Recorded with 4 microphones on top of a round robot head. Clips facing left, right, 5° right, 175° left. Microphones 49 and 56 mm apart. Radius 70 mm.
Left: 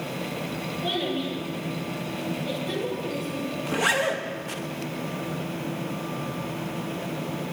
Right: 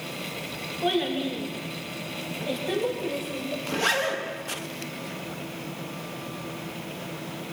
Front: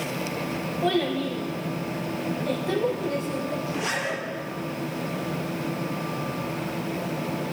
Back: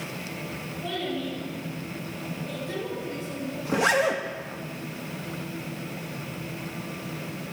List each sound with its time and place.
0.8 s a child speaking: 30° right, 6 m; by 3.5 s 25° right, 4.5 m
3.6 s a zipper: 165° left, 2 m